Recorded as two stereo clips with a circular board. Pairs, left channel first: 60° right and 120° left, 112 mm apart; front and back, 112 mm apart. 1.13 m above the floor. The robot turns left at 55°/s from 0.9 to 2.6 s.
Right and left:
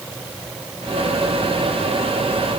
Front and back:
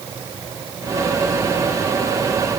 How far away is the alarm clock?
No alarm clock in this recording.